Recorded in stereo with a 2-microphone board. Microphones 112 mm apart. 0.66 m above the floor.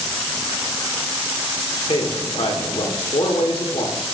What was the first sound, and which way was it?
A man speaking, 60° left (ahead or behind).